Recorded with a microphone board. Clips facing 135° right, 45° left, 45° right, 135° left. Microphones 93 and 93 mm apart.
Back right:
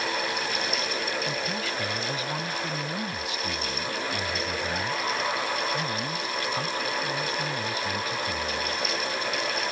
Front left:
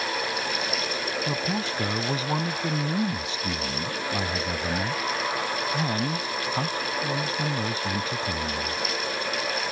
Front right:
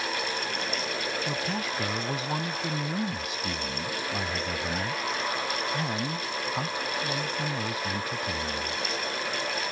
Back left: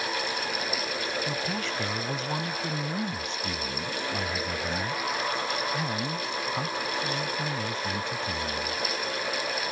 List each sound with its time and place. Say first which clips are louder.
1.3 s a man speaking: front left 2 dB, even; 30° left